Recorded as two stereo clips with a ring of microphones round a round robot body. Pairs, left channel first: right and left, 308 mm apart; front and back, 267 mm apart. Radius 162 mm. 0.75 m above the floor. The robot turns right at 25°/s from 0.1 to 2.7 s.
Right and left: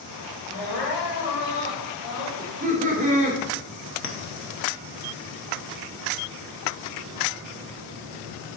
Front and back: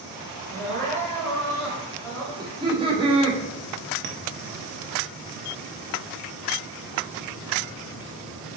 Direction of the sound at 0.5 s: 105° right.